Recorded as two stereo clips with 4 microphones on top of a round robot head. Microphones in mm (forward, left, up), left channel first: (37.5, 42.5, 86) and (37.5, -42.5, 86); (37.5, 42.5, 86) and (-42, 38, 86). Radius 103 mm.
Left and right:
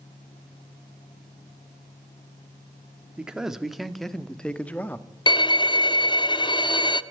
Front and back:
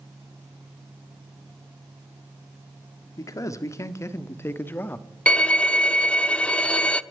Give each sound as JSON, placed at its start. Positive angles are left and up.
{"t": 3.2, "sound": "a man speaking", "azimuth_deg": -15, "distance_m": 1.6}
{"t": 5.3, "sound": "a violin", "azimuth_deg": 80, "distance_m": 0.8}